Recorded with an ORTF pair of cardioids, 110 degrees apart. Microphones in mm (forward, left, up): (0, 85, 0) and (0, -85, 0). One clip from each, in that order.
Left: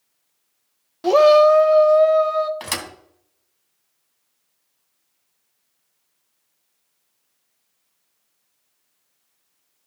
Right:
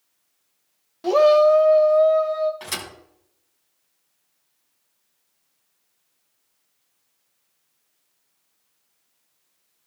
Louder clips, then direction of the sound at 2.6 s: Left 3 dB; 50° left.